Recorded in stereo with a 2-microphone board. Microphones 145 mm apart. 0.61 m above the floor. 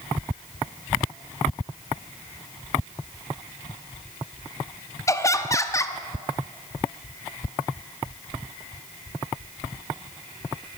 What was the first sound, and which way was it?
Laughter, 20° left (ahead or behind).